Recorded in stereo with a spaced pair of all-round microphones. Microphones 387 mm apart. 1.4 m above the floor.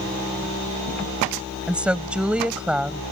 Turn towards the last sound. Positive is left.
turn(degrees=-5)  # may be behind; listen again after turning